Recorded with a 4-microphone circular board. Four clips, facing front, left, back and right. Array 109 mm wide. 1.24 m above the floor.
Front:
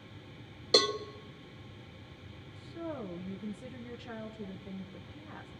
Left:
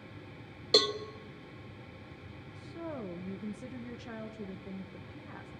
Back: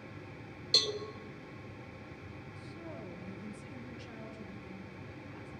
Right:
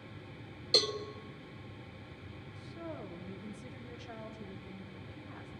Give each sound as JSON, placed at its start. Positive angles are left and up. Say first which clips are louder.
{"t": 0.7, "sound": "a cowbell", "louder": "left 5 dB, front 10 dB", "azimuth_deg": 35, "distance_m": 1.4}
{"t": 2.5, "sound": "a woman speaking", "louder": "left 4 dB, front 8 dB", "azimuth_deg": 60, "distance_m": 1.6}